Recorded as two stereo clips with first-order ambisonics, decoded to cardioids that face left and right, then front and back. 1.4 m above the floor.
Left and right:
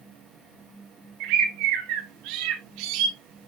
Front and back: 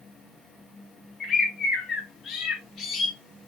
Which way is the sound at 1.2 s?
65° right.